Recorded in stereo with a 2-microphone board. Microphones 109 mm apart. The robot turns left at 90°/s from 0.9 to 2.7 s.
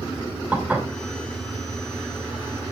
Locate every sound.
0.5 s dishes clattering: 15° right (ahead or behind), 3 m